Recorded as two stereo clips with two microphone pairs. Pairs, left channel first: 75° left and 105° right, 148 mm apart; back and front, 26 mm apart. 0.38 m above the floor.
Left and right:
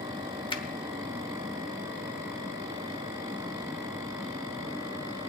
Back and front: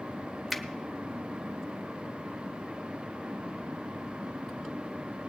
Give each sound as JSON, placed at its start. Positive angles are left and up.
{"t": 0.5, "sound": "a finger snap", "azimuth_deg": 85, "distance_m": 1.1}